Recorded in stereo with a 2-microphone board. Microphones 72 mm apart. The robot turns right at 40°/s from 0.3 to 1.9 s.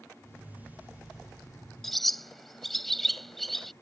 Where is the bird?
5° left (ahead or behind); by 3.7 s centre (ahead or behind).